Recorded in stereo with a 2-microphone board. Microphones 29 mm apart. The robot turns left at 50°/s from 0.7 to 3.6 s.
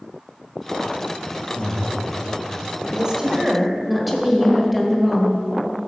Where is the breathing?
60° left (ahead or behind), 1.3 m; by 1.9 s 45° left (ahead or behind), 1.3 m.